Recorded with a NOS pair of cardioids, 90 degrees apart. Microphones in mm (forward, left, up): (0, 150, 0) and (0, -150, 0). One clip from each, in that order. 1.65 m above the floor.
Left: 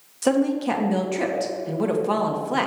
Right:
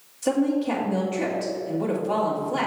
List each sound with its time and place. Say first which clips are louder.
0.2 s a woman speaking: left 2 dB; 65° left, 1.8 m